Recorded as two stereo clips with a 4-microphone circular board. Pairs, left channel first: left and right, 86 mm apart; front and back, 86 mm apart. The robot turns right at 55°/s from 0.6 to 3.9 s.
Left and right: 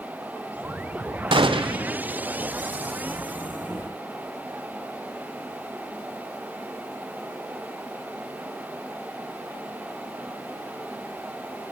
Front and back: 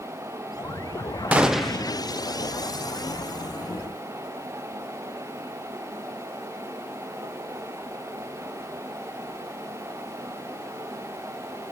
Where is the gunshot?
105° right, 0.8 m; by 1.9 s 70° right, 0.8 m.